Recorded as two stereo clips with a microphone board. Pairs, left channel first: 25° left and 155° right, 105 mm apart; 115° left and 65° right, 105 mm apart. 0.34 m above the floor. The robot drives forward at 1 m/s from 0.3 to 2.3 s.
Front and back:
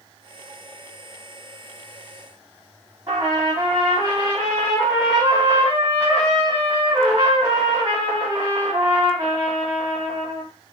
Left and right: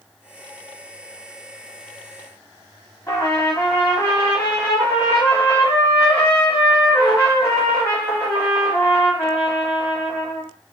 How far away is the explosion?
I don't hear an explosion.